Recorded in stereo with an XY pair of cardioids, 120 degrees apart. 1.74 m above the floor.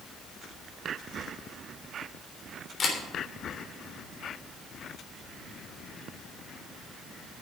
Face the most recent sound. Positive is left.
turn(degrees=35)